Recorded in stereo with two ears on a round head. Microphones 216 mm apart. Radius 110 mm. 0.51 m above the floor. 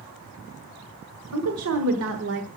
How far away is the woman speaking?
About 1.9 m.